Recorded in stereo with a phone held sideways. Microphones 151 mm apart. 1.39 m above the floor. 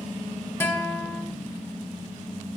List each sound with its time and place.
0.6 s a guitar: 15° left (ahead or behind), 0.8 m